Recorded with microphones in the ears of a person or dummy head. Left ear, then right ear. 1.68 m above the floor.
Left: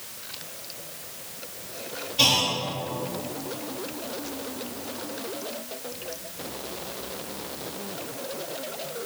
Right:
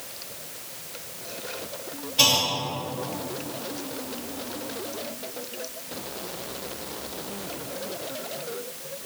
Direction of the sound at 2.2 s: 15° right (ahead or behind).